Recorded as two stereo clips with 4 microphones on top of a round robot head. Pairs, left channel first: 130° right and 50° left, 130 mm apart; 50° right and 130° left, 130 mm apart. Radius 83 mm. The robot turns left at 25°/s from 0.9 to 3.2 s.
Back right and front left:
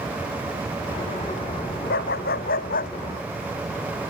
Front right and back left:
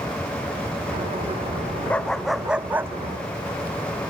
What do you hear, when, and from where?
1.9 s a dog barking: 130° right; by 2.9 s 155° right